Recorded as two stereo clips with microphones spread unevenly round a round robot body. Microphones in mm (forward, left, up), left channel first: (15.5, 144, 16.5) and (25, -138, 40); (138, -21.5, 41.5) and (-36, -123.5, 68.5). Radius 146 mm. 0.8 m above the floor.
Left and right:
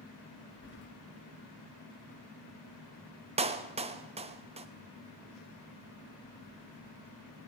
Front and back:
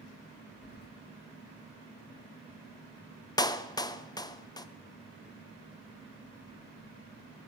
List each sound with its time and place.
0.6 s keys jangling: 55° left, 0.8 m
3.4 s a clap: 25° right, 0.7 m